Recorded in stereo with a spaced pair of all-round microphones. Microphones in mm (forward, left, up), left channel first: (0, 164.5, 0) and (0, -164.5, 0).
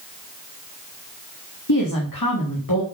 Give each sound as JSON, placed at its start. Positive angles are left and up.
{"t": 1.7, "sound": "a woman speaking", "side_deg": 75, "distance_m": 2.5}